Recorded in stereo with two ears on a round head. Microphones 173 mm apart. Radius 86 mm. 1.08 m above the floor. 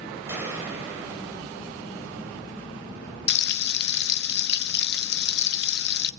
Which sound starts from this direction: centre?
A gunshot, at 0.3 s.